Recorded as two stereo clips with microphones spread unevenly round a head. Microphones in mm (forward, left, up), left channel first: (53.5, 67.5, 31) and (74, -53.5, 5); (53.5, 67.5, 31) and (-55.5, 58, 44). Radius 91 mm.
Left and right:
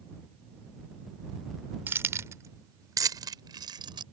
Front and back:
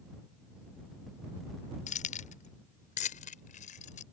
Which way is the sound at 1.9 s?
5° right.